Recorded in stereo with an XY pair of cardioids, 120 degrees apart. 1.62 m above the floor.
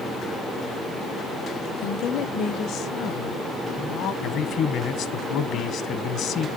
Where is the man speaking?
65° left, 1.6 m.